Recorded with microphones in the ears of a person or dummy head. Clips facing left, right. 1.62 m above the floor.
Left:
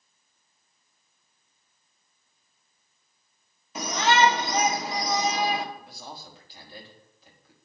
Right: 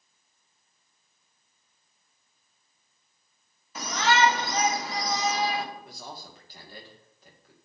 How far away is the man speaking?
About 2 m.